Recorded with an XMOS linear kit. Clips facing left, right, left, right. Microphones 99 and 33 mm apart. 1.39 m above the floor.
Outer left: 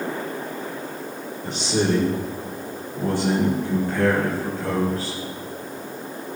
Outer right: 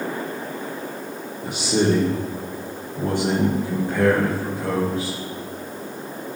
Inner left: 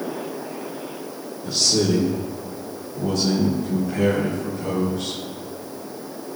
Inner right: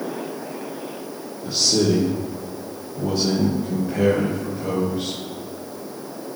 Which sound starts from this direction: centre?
A man speaking, at 1.4 s.